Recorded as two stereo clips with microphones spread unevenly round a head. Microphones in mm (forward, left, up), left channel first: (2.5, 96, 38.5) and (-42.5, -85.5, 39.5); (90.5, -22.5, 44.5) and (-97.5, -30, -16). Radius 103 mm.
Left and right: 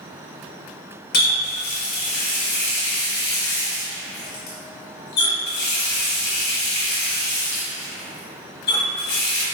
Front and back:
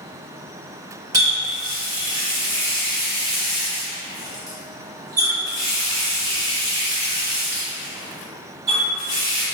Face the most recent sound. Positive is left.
turn(degrees=100)